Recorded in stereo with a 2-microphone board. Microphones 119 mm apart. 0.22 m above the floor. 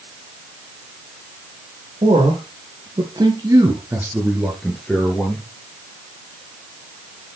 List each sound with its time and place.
2.0 s a man speaking: 55° right (ahead or behind), 4 m; by 5.5 s 15° left (ahead or behind), 3.5 m